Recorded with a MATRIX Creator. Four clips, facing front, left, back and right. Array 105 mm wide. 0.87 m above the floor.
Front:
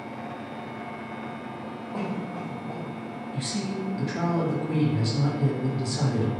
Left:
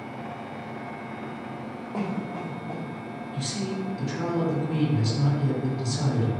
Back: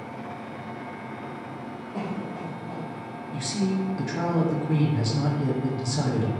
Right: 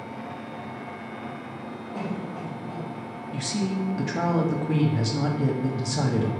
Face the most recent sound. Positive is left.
turn(degrees=-105)